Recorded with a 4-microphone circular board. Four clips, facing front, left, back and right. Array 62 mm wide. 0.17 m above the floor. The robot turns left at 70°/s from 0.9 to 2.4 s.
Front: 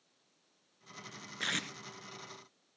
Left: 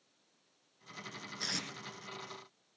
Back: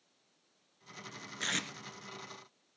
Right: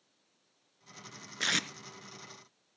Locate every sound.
1.4 s tape being pulled: 70° right, 1.1 m; by 1.7 s 90° right, 1.1 m